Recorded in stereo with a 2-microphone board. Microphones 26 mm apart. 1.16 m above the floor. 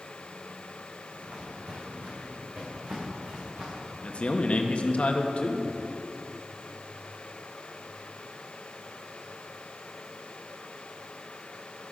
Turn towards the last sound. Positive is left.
turn(degrees=55)  # may be behind; listen again after turning